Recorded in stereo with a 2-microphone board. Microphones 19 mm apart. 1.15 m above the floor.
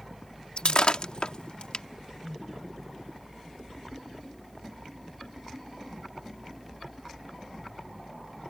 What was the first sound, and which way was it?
Breaking glass, 60° left (ahead or behind).